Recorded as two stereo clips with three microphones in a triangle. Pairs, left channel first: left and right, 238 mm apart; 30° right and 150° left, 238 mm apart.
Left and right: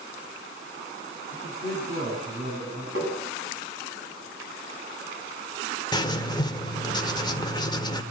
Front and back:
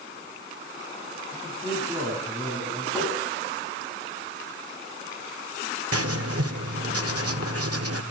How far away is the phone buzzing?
I don't hear a phone buzzing.